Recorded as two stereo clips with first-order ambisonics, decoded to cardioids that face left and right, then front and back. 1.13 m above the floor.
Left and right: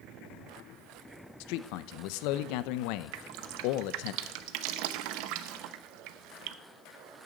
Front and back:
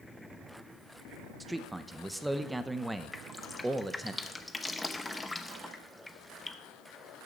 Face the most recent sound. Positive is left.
turn(degrees=-85)